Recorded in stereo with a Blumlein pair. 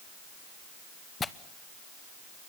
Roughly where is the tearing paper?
Ahead.